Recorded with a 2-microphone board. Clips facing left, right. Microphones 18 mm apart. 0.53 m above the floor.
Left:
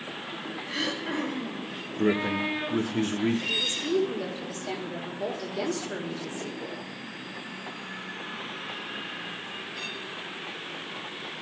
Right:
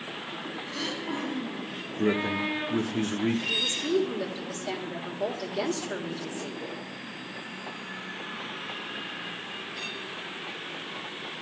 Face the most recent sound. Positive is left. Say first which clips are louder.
# even
turn(degrees=-10)  # may be behind; listen again after turning